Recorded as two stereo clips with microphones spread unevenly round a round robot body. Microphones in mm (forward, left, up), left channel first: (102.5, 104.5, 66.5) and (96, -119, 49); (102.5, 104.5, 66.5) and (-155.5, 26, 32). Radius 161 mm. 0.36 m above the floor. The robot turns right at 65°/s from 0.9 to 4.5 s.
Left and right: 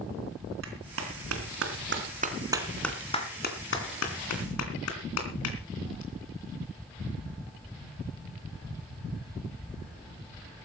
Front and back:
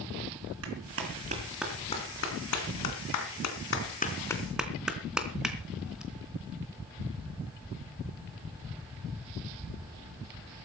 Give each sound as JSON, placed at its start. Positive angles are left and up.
{"t": 0.6, "sound": "a clap", "azimuth_deg": -125, "distance_m": 3.0}